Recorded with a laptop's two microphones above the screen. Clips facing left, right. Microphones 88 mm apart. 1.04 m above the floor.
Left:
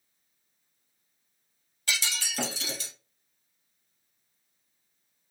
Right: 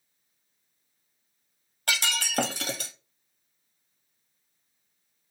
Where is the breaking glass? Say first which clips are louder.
Right 4 dB; 60° right (ahead or behind), 0.6 m.